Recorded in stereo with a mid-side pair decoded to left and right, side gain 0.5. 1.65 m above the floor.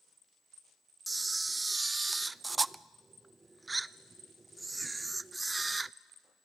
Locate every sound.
1.1 s a camera shutter: 20° right, 0.6 m